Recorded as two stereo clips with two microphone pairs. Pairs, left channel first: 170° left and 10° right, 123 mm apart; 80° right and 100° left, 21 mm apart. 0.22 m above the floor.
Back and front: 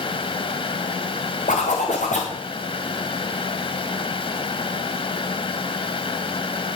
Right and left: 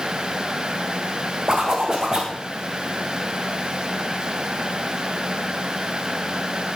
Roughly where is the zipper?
Behind.